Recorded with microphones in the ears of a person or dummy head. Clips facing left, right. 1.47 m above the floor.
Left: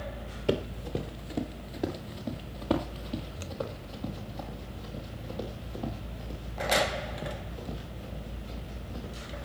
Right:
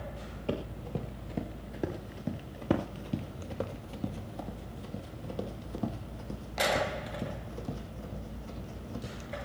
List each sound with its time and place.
0.5 s running footsteps: 15° left (ahead or behind), 1.8 m; by 9.5 s 50° right (ahead or behind), 5.5 m